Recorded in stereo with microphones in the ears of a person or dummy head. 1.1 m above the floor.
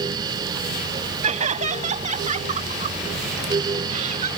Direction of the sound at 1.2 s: 35° right (ahead or behind).